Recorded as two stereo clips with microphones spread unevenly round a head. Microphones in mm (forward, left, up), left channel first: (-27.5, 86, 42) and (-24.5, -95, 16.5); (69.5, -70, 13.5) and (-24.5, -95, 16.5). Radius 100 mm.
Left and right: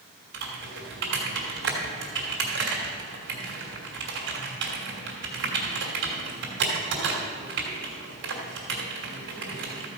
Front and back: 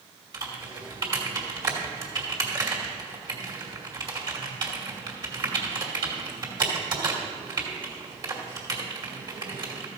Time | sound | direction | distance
0.3 | typing on a keyboard | 115° right | 2.5 m